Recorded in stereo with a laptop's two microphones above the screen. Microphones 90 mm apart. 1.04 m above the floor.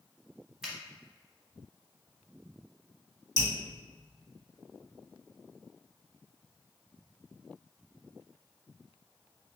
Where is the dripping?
55° left (ahead or behind), 1.7 m.